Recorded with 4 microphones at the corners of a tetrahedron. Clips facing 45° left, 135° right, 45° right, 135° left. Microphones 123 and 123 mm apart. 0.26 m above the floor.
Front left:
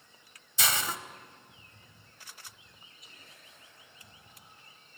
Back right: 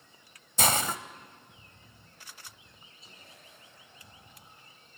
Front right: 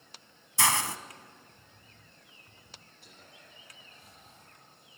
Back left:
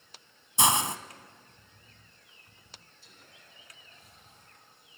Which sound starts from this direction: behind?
A hiss, at 0.6 s.